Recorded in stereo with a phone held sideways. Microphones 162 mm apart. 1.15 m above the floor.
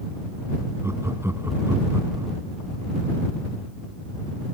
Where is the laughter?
15° right (ahead or behind).